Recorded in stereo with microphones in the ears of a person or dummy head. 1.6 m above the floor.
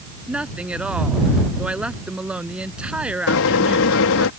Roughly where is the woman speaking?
Centre.